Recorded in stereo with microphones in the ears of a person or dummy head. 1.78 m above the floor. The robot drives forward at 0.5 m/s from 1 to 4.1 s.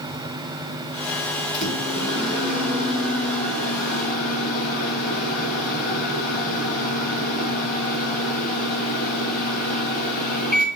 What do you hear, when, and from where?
1.5 s a microwave: 35° left (ahead or behind), 5 m; by 10.7 s 45° left (ahead or behind), 4 m